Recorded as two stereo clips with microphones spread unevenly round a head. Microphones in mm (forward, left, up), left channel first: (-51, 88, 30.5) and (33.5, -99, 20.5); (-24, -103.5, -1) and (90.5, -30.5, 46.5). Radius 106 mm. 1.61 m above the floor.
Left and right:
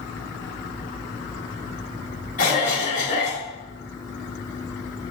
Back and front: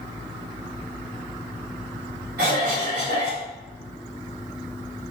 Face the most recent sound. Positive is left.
turn(degrees=60)